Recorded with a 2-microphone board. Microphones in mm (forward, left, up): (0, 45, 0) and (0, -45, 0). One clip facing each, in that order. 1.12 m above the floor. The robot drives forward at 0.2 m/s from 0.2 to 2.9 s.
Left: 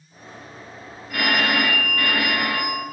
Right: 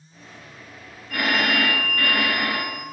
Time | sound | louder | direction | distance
1.1 | a phone ringing | left 1 dB | 5° left (ahead or behind) | 0.6 m